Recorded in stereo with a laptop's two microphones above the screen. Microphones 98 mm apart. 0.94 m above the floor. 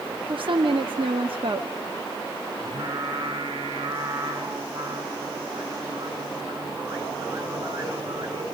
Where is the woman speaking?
65° right (ahead or behind), 1.5 m.